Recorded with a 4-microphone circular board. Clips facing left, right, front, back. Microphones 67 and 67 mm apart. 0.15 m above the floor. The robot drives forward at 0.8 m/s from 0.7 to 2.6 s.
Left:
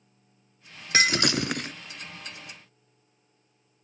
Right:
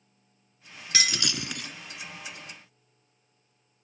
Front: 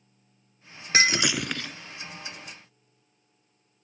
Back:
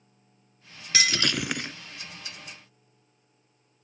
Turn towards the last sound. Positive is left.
turn(degrees=155)